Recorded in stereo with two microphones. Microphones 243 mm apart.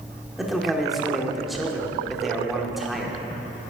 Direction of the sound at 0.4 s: Centre (ahead or behind).